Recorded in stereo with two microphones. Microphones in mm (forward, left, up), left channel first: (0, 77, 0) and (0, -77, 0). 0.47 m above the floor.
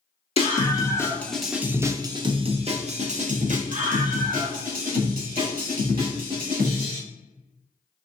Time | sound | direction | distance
0.4 | a scream | 35° left (ahead or behind) | 0.9 m